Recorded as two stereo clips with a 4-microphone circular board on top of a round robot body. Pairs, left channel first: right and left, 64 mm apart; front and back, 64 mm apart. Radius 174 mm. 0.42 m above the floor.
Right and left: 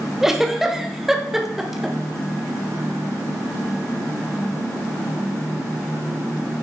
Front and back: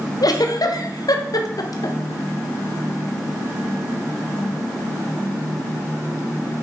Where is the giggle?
5° left, 1.4 m.